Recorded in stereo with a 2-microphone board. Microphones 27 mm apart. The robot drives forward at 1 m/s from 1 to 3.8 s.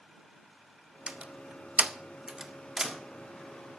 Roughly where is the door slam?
Right.